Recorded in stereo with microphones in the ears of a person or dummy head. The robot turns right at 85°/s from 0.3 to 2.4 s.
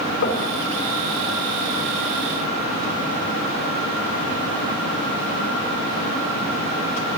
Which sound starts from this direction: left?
Knocking, at 0.2 s.